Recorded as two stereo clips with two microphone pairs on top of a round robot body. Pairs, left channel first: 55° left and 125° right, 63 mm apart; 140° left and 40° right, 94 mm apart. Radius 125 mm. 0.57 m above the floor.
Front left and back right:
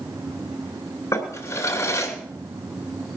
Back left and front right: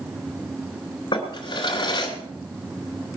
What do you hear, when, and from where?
1.1 s a drawer: 95° left, 3 m